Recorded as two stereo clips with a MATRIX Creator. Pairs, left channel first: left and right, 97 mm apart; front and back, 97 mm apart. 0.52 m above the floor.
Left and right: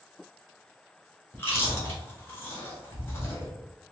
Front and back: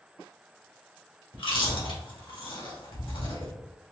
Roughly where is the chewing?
Ahead left.